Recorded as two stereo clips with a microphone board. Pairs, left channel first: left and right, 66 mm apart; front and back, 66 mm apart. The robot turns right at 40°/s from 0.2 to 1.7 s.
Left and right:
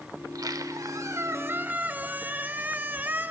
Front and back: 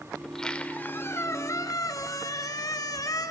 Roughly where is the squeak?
Right.